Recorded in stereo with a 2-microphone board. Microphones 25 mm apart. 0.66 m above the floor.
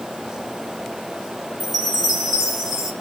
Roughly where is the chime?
Centre.